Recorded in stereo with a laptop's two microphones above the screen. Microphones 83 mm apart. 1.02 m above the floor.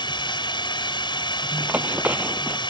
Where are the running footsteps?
20° right (ahead or behind).